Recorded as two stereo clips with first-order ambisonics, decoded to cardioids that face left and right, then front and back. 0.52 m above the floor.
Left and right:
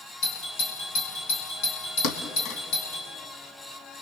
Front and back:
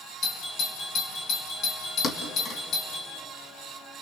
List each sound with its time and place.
0.2 s a doorbell: 55° left, 5 m
2.0 s a thud: 60° left, 1.5 m